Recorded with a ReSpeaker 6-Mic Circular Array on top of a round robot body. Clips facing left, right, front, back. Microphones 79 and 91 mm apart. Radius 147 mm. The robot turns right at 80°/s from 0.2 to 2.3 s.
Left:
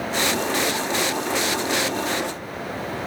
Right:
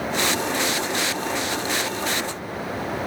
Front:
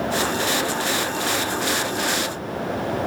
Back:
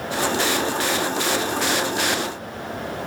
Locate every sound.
Only background noise.